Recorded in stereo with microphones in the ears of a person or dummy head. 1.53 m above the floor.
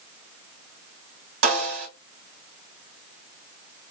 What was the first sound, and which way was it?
A snare drum, 85° right.